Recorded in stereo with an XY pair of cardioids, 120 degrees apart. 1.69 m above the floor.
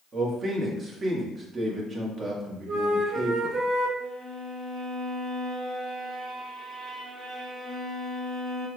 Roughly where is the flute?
Ahead right.